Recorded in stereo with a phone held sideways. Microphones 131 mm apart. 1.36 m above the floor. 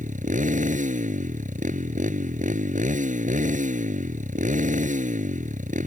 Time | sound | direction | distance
0.0 | a motorcycle | 80° right | ?